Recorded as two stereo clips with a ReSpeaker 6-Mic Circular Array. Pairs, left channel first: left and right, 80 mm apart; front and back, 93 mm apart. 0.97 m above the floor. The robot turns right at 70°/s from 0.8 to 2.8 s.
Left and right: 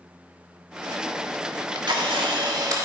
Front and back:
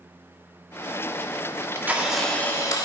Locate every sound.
1.5 s a camera shutter: 135° right, 1.5 m; by 2.9 s 45° right, 1.5 m